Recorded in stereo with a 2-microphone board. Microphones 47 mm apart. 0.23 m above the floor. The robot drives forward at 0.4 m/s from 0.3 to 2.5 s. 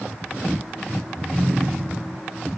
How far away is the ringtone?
About 1.0 m.